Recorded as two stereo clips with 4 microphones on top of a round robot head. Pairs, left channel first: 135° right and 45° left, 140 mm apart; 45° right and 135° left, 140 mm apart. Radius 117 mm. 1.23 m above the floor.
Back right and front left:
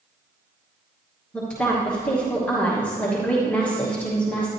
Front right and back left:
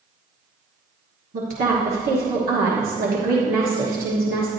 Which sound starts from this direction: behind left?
A woman speaking, at 1.3 s.